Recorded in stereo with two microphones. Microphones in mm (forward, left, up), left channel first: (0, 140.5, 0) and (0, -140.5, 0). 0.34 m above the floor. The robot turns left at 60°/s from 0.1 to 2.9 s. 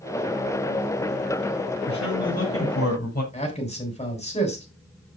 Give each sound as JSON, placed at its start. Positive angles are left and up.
{"t": 1.9, "sound": "a man speaking", "azimuth_deg": 95, "distance_m": 7.5}
{"t": 3.3, "sound": "a man speaking", "side_deg": 25, "distance_m": 3.0}